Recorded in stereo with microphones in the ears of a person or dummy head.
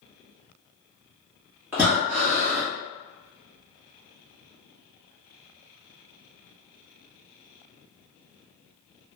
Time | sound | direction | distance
1.7 | breathing | 10° right (ahead or behind) | 1.2 m